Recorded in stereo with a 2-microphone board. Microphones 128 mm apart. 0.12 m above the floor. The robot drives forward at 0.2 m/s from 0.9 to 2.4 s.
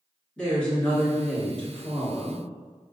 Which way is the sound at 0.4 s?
5° left (ahead or behind).